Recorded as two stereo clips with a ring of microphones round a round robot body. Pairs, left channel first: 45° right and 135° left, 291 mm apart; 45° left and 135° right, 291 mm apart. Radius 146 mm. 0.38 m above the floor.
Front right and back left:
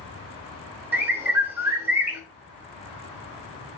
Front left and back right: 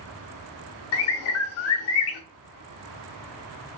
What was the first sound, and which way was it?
A bird, 55° left.